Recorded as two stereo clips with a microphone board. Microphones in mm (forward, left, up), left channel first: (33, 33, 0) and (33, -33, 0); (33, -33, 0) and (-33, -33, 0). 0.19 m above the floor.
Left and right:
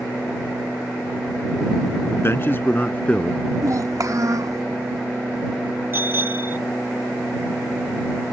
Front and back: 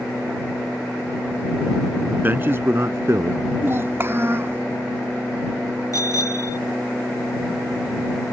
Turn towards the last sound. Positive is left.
turn(degrees=-35)